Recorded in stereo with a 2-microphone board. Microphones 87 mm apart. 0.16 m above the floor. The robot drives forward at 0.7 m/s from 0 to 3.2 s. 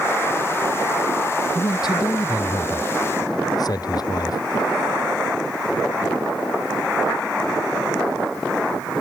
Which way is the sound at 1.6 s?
60° left (ahead or behind).